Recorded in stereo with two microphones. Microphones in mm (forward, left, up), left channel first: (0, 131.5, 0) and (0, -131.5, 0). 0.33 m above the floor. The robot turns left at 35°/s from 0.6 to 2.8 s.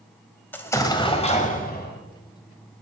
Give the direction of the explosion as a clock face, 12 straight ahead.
6 o'clock.